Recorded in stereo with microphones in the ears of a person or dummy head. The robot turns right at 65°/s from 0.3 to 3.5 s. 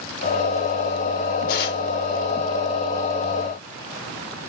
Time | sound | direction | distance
1.5 | tearing paper | 55° left (ahead or behind) | 1.3 m